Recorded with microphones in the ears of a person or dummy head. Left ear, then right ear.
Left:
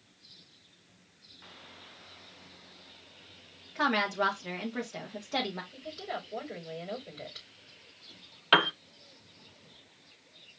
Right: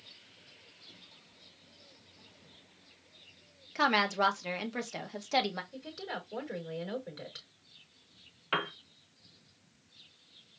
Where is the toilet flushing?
I don't hear a toilet flushing.